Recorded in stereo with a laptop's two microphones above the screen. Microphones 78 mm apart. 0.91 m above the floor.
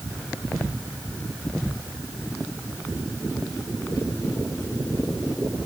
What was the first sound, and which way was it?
Only background noise.